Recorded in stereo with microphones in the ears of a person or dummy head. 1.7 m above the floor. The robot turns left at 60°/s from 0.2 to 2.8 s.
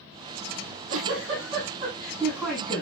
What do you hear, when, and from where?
0.6 s a giggle: 70° right, 9 m; by 2.8 s 155° left, 9 m